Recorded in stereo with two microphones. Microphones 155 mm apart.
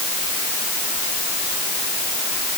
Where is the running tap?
No running tap in this recording.